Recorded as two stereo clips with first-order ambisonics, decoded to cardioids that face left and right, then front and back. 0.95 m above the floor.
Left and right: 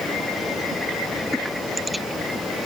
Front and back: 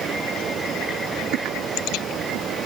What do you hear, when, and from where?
Only background noise.